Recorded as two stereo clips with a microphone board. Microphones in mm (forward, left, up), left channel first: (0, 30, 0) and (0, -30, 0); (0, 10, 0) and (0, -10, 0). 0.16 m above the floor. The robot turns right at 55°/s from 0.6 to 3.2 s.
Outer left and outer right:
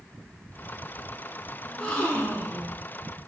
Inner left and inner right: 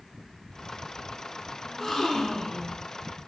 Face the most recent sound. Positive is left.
turn(degrees=100)